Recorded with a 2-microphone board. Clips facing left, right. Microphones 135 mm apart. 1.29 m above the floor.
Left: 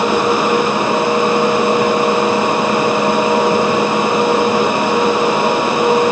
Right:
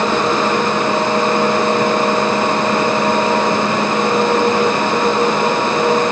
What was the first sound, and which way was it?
Only background noise.